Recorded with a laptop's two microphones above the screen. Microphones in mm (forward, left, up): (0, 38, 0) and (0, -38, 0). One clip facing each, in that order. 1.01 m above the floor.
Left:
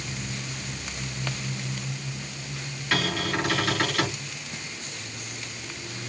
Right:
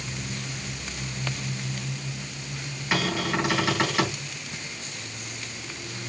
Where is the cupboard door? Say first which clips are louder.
Right 1 dB; 15° right (ahead or behind), 4 m.